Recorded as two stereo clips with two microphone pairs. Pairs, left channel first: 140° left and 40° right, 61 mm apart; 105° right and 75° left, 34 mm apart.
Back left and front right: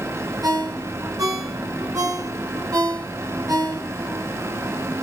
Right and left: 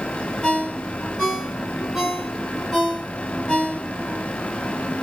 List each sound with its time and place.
0.4 s a ringtone: 25° right, 2.5 m